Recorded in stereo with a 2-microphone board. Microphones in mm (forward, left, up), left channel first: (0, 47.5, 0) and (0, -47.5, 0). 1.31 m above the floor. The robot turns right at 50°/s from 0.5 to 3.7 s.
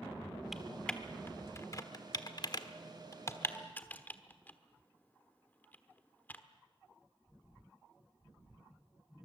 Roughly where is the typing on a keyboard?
Centre.